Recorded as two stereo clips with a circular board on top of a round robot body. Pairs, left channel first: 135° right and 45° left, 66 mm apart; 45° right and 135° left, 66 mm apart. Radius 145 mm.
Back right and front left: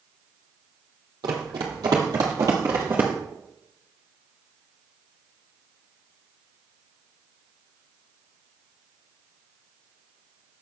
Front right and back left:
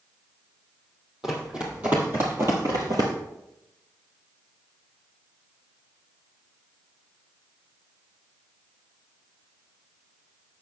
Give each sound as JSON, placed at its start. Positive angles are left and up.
{"t": 1.2, "sound": "running footsteps", "azimuth_deg": 55, "distance_m": 1.4}